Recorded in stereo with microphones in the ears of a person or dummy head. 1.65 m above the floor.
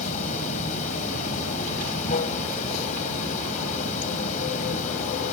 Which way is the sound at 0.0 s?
40° left (ahead or behind).